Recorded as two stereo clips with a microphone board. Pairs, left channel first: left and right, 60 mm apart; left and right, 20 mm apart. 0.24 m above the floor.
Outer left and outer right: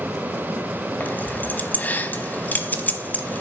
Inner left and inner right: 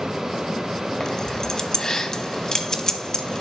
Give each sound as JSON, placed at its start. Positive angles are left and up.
{"t": 1.0, "sound": "keys jangling", "side_deg": 30, "distance_m": 1.0}